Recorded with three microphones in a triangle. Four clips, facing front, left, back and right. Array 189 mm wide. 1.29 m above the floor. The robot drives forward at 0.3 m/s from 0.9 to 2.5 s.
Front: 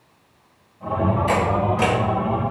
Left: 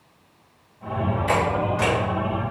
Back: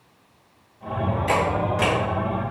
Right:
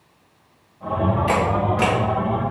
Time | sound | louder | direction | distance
1.3 | a camera shutter | left 1 dB, front 2 dB | 110° right | 3.5 m